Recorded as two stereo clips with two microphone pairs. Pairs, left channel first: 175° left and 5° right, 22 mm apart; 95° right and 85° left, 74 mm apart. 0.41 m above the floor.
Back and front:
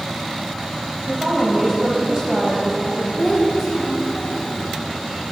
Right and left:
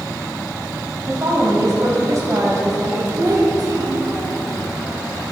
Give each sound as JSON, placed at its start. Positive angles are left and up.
{"t": 1.1, "sound": "a woman speaking", "azimuth_deg": 45, "distance_m": 2.5}
{"t": 3.2, "sound": "a child speaking", "azimuth_deg": 70, "distance_m": 2.5}